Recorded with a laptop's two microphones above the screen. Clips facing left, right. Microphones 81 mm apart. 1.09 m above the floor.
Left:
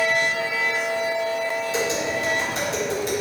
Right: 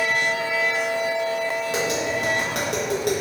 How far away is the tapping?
About 1.2 m.